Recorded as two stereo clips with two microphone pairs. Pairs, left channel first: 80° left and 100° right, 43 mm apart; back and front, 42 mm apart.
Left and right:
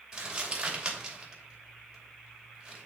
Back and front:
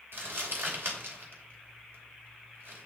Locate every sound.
0.1 s crumpling: 30° right, 2.5 m